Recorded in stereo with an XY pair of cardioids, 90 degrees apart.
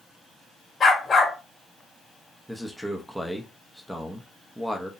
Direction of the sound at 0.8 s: 35° left.